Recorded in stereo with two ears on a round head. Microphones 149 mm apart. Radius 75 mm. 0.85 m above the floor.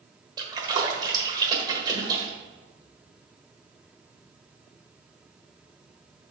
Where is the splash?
25° right (ahead or behind), 1.3 m.